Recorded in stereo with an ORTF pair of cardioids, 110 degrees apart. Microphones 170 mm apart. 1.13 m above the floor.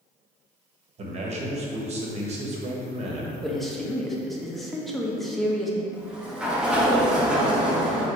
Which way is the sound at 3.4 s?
Straight ahead.